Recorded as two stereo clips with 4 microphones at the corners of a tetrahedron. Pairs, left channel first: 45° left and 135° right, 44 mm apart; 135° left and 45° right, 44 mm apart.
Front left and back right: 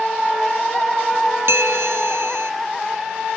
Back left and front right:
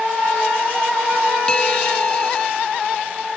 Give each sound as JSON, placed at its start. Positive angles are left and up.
{"t": 1.5, "sound": "a bell", "azimuth_deg": -155}